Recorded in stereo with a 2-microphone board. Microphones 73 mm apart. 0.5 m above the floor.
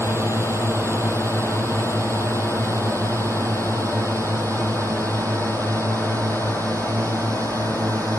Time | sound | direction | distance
0.0 | a drone | 35° right (ahead or behind) | ?